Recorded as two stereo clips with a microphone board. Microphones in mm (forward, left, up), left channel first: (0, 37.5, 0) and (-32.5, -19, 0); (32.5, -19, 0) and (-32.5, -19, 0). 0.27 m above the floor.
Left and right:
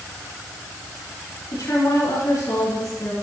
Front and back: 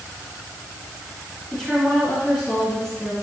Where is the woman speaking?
90° left, 3.5 m.